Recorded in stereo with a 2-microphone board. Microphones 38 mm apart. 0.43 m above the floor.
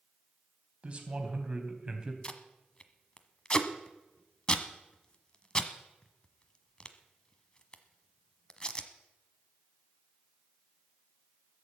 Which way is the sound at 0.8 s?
35° right (ahead or behind).